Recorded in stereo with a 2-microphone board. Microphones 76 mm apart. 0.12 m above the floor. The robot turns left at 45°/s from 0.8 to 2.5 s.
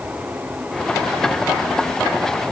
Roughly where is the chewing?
I don't hear chewing.